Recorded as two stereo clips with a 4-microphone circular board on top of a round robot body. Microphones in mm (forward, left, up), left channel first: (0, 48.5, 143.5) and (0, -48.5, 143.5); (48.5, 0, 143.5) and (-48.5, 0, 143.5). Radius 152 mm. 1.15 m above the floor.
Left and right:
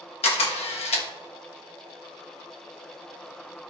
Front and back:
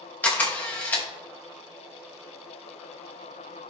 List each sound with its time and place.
0.2 s a camera shutter: 75° left, 1.1 m